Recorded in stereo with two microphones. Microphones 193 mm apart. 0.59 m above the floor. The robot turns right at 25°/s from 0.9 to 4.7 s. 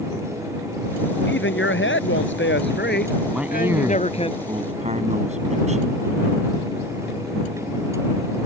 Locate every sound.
1.3 s a man speaking: 75° left; by 4.3 s 150° left
3.3 s a man speaking: 175° right; by 6.0 s 140° right